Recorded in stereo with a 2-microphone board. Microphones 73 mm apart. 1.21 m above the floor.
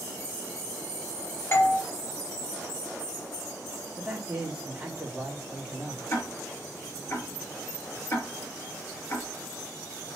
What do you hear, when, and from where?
1.5 s a doorbell: 35° left (ahead or behind), 1.4 m
4.0 s a man speaking: 15° right (ahead or behind), 3.5 m
6.1 s ticking: 35° left (ahead or behind), 3.5 m